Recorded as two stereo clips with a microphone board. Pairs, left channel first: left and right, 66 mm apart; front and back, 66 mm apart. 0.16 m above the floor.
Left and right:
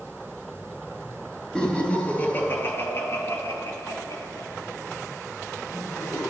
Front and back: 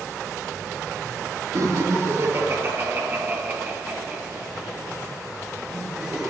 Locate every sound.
1.6 s laughter: 165° left, 3 m; by 6.3 s 90° left, 5.5 m